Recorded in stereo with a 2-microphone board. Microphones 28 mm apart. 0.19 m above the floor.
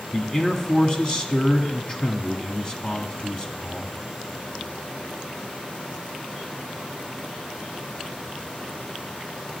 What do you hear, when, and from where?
0.1 s a man speaking: 30° left (ahead or behind), 1.3 m